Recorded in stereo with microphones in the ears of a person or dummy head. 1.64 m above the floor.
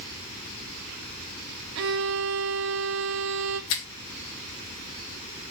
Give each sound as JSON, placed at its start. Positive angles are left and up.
{"t": 1.8, "sound": "a violin", "side_deg": -60, "distance_m": 1.0}
{"t": 3.7, "sound": "a finger snap", "side_deg": 75, "distance_m": 3.0}